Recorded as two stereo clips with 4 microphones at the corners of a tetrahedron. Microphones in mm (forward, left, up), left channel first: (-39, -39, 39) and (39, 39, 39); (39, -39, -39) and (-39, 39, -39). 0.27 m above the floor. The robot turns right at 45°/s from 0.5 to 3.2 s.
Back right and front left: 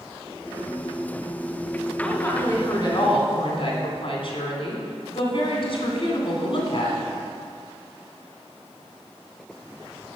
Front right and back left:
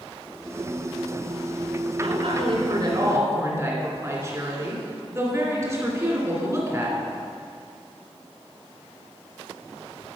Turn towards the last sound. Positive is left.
turn(degrees=-165)